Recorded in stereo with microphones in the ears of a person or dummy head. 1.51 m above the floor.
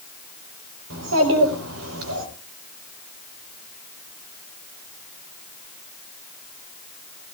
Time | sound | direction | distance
0.9 | a child speaking | 80° right | 4.5 m